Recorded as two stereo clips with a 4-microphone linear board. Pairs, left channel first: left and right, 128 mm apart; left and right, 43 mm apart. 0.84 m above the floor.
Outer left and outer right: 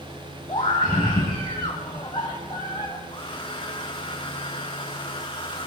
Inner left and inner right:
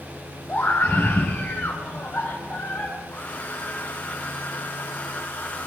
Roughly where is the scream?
Left.